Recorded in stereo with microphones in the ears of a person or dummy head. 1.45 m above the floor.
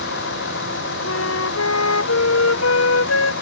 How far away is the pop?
No pop in this recording.